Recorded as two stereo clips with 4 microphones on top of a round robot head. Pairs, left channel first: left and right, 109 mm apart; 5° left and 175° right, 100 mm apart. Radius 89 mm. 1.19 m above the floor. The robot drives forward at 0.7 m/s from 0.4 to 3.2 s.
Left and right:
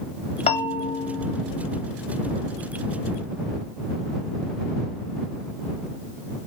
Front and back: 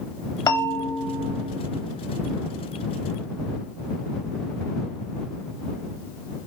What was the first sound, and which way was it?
A bell, 60° left.